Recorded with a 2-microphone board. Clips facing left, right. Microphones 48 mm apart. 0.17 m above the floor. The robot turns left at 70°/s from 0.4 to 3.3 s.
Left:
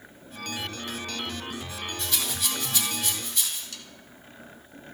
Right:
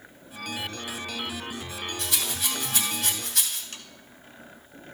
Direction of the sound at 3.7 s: 45° right (ahead or behind).